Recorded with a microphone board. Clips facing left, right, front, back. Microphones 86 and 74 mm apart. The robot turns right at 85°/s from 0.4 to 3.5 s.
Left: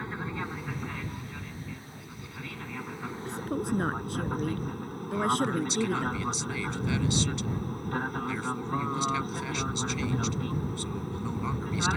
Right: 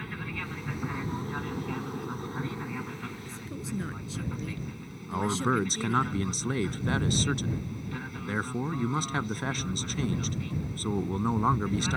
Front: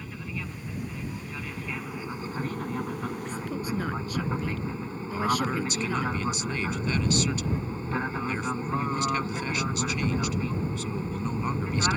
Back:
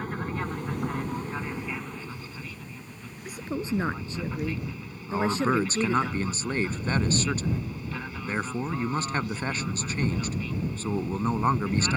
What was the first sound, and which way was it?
An aircraft, 150° left.